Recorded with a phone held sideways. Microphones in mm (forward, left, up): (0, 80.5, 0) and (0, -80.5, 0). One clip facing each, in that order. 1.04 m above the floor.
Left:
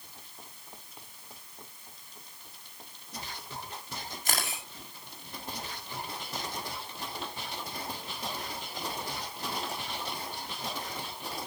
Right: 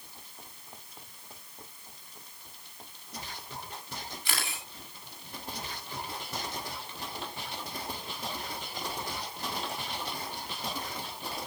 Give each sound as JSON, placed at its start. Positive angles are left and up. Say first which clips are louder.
{"t": 4.2, "sound": "a camera shutter", "louder": "left 4 dB", "side_deg": 40, "distance_m": 5.5}